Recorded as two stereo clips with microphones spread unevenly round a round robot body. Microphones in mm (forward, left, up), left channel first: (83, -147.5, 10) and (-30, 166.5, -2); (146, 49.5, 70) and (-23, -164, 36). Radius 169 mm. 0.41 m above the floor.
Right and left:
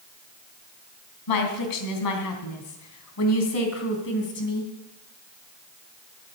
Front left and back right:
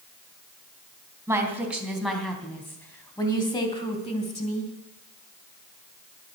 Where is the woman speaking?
50° right, 3 m; by 4.7 s 10° right, 3 m.